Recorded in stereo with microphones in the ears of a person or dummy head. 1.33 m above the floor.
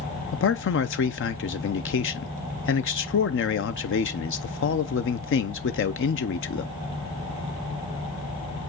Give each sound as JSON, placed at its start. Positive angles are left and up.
{"t": 0.3, "sound": "a man speaking", "side_deg": 60, "distance_m": 0.7}